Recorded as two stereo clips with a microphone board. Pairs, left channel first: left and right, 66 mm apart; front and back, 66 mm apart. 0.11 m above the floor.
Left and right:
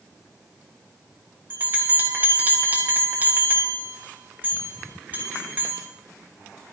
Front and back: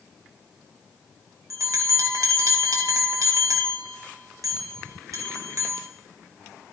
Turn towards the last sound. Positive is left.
turn(degrees=-150)